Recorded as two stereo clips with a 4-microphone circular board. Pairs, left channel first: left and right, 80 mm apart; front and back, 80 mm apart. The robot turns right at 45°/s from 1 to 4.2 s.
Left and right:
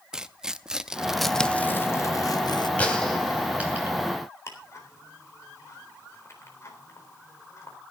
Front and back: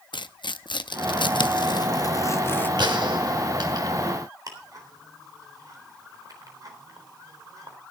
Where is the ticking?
140° left, 3.5 m.